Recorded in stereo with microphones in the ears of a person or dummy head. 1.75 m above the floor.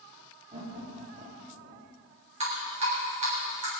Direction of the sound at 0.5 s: 35° right (ahead or behind).